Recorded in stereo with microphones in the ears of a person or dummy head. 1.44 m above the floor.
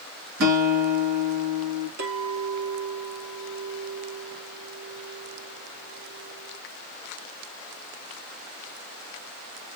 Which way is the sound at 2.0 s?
75° right (ahead or behind).